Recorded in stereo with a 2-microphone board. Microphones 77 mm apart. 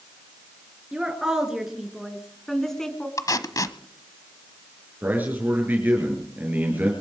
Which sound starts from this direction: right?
A man speaking, at 5.0 s.